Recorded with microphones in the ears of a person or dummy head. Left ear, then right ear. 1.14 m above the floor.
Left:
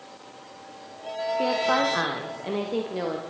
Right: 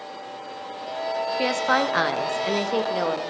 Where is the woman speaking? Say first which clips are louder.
Right 1 dB; 60° right (ahead or behind), 1.0 m; by 3.2 s 55° right (ahead or behind), 1.8 m.